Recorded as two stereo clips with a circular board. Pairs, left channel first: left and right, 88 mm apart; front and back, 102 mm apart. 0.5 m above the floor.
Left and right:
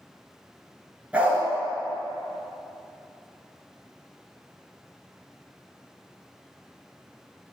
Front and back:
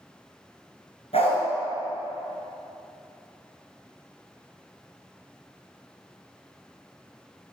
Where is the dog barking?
15° right, 3 m.